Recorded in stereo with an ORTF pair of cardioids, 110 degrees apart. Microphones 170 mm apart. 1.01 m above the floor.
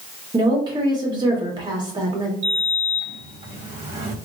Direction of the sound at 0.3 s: 25° right.